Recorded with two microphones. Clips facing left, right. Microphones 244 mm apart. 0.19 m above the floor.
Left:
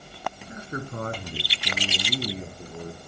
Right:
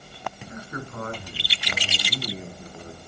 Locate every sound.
0.5 s a man speaking: 25° left (ahead or behind), 1.9 m; by 3.0 s 45° left (ahead or behind), 3 m